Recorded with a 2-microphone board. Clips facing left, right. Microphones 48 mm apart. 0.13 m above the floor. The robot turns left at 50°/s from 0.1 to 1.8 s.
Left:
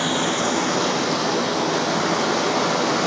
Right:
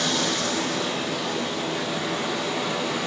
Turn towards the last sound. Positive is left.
turn(degrees=70)